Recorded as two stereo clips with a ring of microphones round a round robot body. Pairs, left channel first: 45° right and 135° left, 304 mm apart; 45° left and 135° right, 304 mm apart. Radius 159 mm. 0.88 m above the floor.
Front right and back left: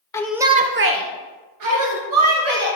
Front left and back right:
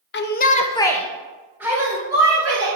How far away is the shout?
About 0.9 m.